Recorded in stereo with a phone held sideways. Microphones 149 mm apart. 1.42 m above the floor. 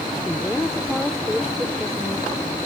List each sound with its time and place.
0.2 s a woman speaking: 5° left (ahead or behind); by 2.3 s centre (ahead or behind)